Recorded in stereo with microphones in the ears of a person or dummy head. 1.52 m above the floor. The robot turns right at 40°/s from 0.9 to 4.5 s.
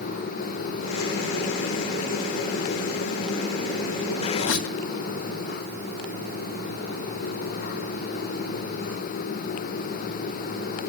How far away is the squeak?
About 1.4 m.